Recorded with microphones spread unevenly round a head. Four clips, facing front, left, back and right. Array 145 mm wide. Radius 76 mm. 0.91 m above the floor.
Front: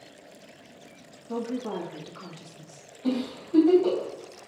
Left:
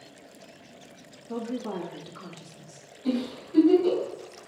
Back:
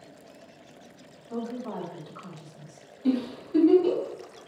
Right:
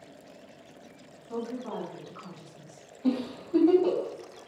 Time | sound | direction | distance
1.3 | a woman speaking | 25° left | 2.5 m
3.0 | a giggle | 55° right | 3.5 m